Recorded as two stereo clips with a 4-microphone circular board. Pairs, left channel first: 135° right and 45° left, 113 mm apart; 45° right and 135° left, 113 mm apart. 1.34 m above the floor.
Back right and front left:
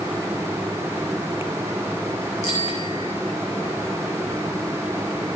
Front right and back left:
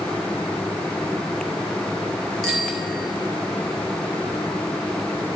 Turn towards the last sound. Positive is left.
turn(degrees=-135)